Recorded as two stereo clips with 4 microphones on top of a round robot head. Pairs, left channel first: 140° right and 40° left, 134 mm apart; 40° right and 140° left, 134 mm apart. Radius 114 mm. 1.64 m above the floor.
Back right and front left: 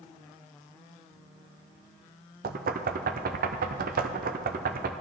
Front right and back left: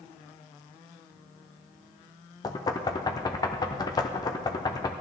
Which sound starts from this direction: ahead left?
Knocking, at 2.4 s.